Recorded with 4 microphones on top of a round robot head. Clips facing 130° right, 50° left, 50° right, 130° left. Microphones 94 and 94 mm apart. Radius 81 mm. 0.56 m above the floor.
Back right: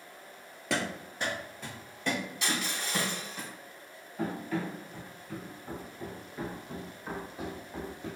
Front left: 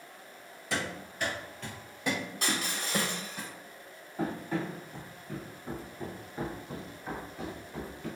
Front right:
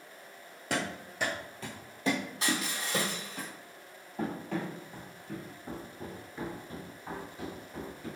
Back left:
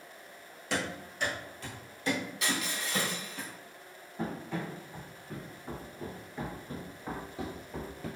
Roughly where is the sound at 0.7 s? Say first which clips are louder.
Back right 2 dB, front right 1 dB; right.